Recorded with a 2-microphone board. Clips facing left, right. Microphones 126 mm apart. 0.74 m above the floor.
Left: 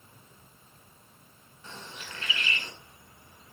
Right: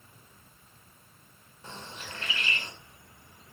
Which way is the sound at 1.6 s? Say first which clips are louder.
Right 1 dB; 35° right (ahead or behind).